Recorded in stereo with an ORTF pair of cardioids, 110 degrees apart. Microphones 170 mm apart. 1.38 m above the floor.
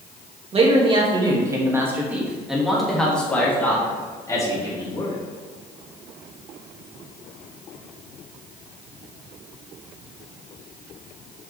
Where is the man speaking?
35° right, 2.5 m; by 5.2 s 25° left, 4 m.